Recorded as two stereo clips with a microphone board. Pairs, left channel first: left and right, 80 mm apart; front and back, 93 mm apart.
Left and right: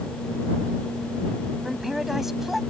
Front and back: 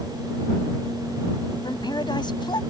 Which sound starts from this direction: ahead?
A man speaking, at 1.6 s.